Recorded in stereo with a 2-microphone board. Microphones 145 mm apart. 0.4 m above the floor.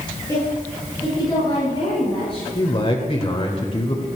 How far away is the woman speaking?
About 7.5 m.